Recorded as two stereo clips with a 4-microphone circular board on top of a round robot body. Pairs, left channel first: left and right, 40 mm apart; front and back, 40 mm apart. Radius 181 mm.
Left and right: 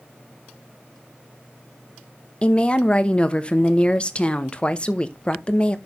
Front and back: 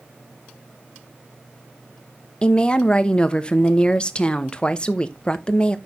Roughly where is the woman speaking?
Ahead left.